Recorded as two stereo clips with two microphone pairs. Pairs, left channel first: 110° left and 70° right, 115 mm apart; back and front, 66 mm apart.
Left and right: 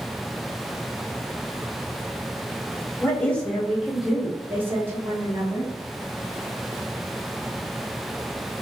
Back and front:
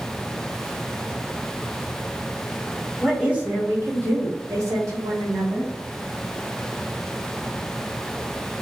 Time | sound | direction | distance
3.0 | a woman speaking | 65° left | 0.8 m